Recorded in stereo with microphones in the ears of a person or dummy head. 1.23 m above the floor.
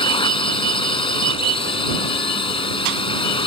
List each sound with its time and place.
0.0 s a drone: 35° left (ahead or behind)